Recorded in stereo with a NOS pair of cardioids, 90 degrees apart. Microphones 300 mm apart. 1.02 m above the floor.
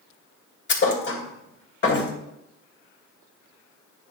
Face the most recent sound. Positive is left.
turn(degrees=35)